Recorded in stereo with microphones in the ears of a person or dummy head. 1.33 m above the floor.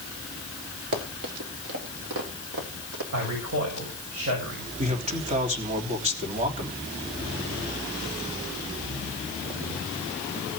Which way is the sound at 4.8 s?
35° right (ahead or behind).